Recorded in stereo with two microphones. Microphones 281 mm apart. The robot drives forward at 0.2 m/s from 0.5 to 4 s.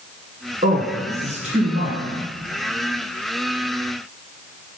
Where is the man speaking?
25° right (ahead or behind), 2.5 m.